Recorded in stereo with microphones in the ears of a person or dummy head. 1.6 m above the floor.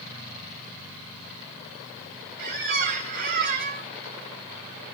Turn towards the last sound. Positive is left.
turn(degrees=-50)  # may be behind; listen again after turning